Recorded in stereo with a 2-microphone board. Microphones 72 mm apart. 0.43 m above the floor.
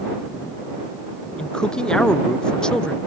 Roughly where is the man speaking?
Centre.